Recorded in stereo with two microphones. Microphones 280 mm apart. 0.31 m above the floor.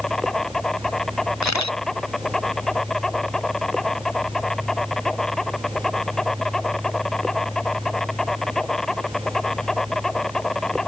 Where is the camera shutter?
75° left (ahead or behind).